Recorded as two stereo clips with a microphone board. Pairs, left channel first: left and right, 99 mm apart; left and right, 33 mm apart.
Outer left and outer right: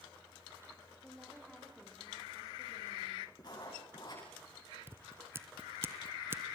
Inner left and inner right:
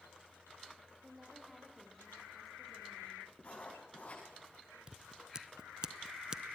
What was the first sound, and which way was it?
A woman speaking, 5° left (ahead or behind).